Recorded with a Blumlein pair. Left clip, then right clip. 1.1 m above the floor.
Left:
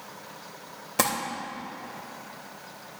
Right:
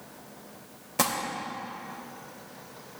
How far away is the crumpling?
About 2.5 m.